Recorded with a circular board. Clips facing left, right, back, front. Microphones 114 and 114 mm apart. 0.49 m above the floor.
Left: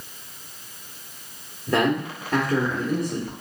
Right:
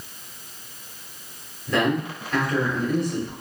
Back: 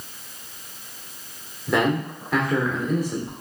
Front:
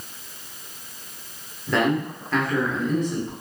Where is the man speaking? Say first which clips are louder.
Left 1 dB, even; 100° left, 1.1 m.